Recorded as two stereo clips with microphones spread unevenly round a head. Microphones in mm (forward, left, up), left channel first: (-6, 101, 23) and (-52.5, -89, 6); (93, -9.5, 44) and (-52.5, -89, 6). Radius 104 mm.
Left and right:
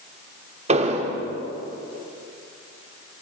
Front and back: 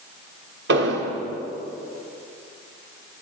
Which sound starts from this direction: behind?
An explosion, at 0.7 s.